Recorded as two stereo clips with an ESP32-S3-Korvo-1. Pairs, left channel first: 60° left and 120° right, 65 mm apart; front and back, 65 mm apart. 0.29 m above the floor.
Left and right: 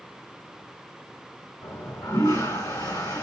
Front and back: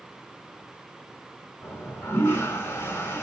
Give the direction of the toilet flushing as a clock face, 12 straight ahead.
10 o'clock.